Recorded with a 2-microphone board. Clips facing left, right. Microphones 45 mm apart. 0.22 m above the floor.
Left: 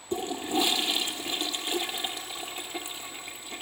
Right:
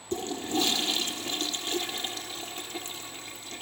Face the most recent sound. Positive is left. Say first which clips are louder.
# left 1 dB
turn(degrees=20)  # may be behind; listen again after turning